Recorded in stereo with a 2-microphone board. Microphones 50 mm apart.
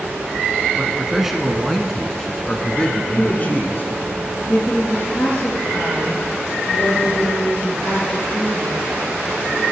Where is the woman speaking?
45° left (ahead or behind), 7 m.